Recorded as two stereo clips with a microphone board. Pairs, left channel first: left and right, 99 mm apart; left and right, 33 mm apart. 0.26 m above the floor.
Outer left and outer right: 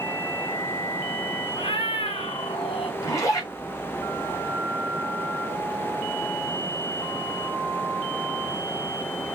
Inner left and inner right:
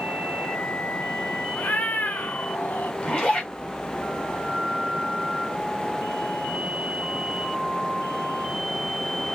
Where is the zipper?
35° left (ahead or behind), 2.5 m.